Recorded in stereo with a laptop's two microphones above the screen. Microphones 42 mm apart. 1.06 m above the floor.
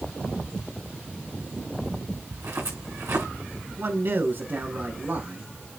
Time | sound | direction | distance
2.3 | footsteps | 80° right | 5 m
3.8 | a man speaking | 50° right (ahead or behind) | 4.5 m